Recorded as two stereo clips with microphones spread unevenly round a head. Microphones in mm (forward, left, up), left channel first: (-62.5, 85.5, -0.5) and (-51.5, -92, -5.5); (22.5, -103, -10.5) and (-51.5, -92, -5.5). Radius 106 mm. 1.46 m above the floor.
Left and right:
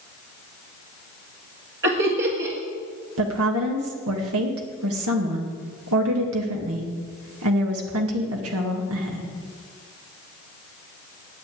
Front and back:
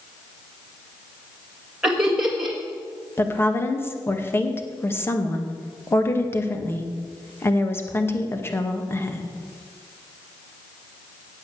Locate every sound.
1.8 s laughter: 105° right, 2 m
3.2 s a woman speaking: 70° right, 2.0 m